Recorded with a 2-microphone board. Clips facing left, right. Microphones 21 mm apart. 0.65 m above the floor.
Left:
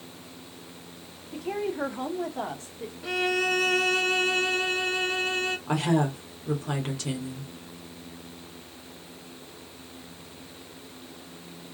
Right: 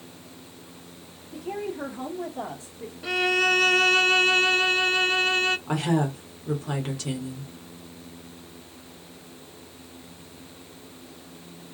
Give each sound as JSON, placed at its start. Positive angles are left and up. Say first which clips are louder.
{"t": 1.3, "sound": "a woman speaking", "louder": "left 2 dB", "side_deg": 50, "distance_m": 1.3}
{"t": 3.0, "sound": "a violin", "louder": "right 4 dB", "side_deg": -20, "distance_m": 0.6}
{"t": 5.7, "sound": "a woman speaking", "louder": "even", "side_deg": 5, "distance_m": 1.6}